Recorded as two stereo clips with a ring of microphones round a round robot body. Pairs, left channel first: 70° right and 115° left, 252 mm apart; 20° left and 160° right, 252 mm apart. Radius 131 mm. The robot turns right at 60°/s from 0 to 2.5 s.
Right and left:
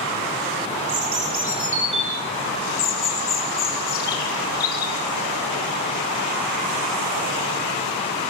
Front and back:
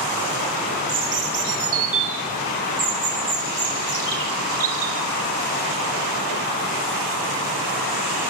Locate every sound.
0.9 s a bird: 140° left, 4 m; by 5.0 s 125° right, 4 m